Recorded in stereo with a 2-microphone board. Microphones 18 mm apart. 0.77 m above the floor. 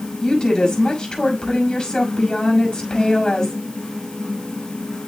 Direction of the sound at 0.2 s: 45° left (ahead or behind).